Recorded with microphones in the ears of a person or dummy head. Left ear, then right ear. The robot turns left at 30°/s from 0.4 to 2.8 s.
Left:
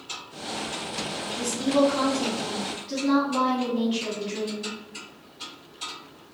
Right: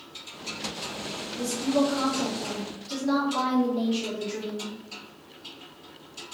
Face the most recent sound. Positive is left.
turn(degrees=10)